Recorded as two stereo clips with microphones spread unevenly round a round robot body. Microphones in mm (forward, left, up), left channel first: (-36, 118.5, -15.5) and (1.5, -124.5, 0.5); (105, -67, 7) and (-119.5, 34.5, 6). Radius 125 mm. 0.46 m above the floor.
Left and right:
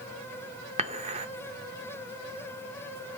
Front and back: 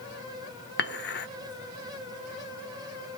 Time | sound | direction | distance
0.8 | dishes clattering | 25° right | 0.6 m